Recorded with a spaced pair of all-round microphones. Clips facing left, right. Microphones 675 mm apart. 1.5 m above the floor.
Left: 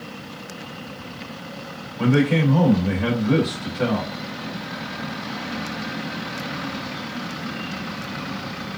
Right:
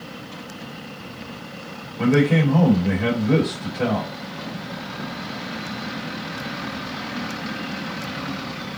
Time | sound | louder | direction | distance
2.0 | a man speaking | right 1 dB | 50° right (ahead or behind) | 2 m